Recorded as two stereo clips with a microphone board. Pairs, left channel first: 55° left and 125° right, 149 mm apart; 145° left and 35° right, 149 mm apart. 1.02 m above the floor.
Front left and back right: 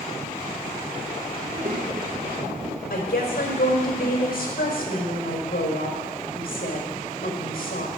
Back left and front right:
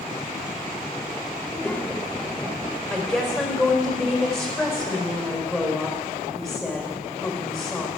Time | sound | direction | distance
1.4 | a child speaking | 140° right | 1.7 m
2.9 | a woman speaking | 55° left | 4 m